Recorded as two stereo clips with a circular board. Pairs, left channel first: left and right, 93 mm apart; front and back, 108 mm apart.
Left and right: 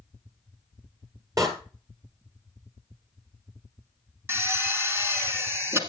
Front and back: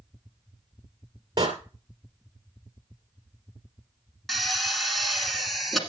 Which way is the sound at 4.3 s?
90° right.